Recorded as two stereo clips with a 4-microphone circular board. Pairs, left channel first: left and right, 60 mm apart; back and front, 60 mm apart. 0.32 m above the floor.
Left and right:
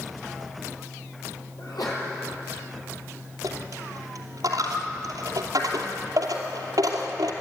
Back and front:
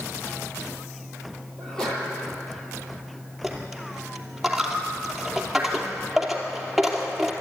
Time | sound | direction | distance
1.6 | a sneeze | 100° left | 8 m
3.4 | a dropped coin | 90° right | 2.5 m